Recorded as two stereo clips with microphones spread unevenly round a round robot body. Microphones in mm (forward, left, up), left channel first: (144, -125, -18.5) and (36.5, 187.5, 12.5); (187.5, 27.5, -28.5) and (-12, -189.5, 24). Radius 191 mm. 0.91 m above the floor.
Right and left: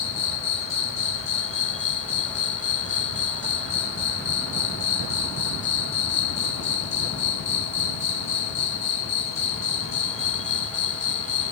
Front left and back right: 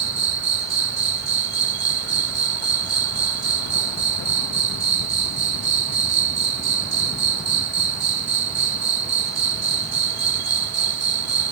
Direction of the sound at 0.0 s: 145° right.